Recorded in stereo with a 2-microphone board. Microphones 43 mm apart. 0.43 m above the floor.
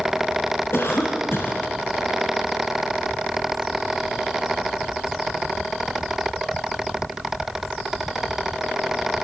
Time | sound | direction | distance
0.7 | a cough | 60° left (ahead or behind) | 4 m